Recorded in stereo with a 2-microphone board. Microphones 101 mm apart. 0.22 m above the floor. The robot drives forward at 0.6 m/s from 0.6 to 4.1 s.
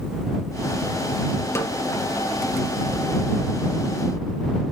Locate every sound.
1.6 s a snare drum: 25° left (ahead or behind), 1.4 m